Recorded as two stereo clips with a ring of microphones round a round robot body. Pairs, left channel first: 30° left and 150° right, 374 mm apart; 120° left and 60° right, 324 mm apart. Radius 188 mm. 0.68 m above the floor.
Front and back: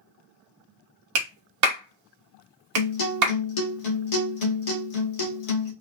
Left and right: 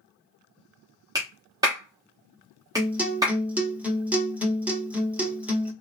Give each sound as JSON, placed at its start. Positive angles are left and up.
{"t": 1.1, "sound": "a clap", "azimuth_deg": -135, "distance_m": 1.1}
{"t": 2.8, "sound": "a guitar", "azimuth_deg": 25, "distance_m": 1.4}